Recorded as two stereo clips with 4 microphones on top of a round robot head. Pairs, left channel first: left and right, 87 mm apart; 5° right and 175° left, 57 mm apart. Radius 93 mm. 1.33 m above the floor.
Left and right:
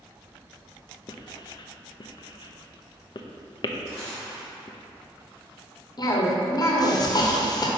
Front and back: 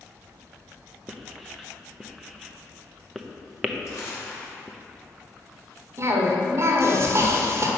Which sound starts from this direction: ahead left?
Crumpling, at 3.9 s.